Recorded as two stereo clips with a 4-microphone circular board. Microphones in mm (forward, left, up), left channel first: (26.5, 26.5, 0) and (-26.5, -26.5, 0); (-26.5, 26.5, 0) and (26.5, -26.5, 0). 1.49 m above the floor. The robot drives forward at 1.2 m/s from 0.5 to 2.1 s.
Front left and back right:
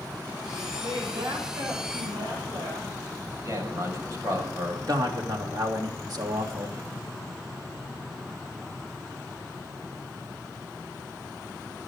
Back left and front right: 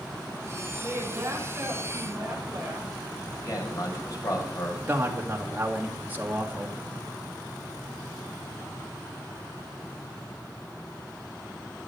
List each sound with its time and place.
0.8 s a woman speaking: 105° right, 7.5 m; by 2.9 s 115° right, 8 m
3.3 s a man speaking: 175° left, 6.5 m
4.9 s a man speaking: 110° right, 3 m